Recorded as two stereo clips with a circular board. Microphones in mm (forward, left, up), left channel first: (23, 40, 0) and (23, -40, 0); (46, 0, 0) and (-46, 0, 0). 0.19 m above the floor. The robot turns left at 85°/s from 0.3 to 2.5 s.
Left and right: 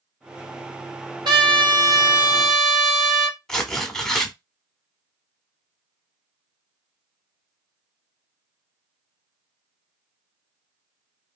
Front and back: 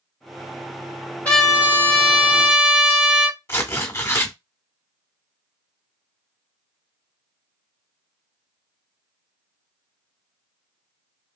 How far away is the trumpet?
About 1.3 m.